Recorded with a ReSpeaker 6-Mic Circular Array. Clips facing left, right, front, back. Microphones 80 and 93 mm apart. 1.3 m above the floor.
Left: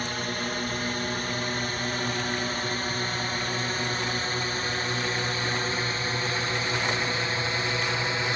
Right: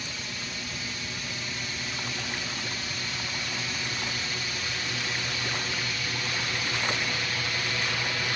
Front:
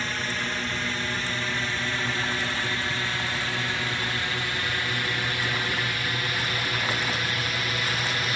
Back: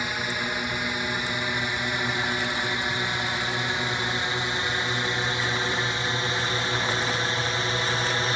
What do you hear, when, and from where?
0.0 s a drone: 105° left; by 8.4 s 140° left